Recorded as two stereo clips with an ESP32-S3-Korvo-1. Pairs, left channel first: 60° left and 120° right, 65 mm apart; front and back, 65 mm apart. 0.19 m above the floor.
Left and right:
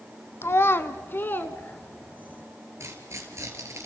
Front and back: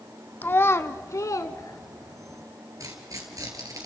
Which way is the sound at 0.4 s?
40° left.